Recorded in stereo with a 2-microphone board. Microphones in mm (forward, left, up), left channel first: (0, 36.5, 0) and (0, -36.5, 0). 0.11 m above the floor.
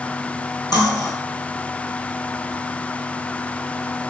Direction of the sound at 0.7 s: 60° left (ahead or behind).